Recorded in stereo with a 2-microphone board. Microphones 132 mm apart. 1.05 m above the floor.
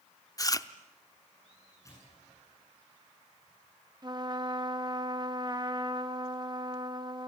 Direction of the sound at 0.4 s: 25° left (ahead or behind).